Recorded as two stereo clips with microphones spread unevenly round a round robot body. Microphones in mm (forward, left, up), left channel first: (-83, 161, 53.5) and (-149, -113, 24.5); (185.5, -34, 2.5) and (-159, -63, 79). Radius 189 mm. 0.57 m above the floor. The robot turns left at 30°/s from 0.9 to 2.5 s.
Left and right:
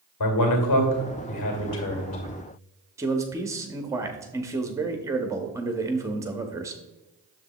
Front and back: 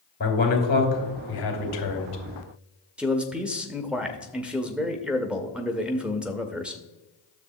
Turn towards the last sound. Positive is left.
turn(degrees=-60)